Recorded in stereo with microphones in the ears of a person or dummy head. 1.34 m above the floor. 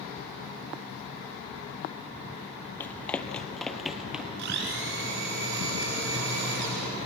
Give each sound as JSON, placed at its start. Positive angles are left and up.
{"t": 2.8, "sound": "running footsteps", "side_deg": 15, "distance_m": 2.5}
{"t": 4.4, "sound": "a blender", "side_deg": -65, "distance_m": 4.0}